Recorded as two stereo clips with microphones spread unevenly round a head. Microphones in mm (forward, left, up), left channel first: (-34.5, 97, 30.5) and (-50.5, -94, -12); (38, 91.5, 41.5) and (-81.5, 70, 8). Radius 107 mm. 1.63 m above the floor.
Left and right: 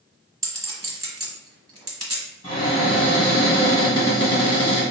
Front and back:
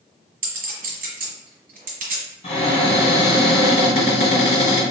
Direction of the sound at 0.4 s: 175° right.